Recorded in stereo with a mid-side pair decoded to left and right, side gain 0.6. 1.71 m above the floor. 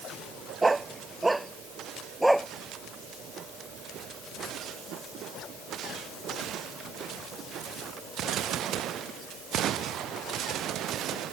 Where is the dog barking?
15° right; by 2.5 s straight ahead.